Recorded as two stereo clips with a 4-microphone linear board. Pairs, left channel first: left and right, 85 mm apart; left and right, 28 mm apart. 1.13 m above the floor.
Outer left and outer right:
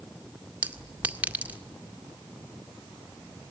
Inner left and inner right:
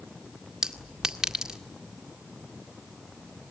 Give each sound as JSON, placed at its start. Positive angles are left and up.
{"t": 0.6, "sound": "a clink", "side_deg": -20, "distance_m": 1.9}